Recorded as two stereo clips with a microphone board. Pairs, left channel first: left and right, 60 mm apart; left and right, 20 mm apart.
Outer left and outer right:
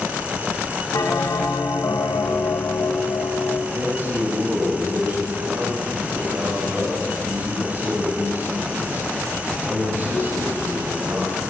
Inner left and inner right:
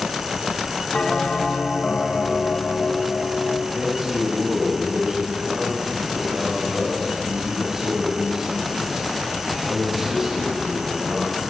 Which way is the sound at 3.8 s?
35° right (ahead or behind).